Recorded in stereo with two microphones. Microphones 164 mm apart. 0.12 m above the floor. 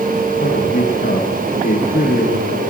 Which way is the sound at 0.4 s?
80° left.